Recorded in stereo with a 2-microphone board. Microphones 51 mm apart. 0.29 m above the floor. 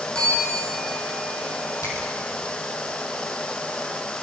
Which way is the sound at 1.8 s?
85° left.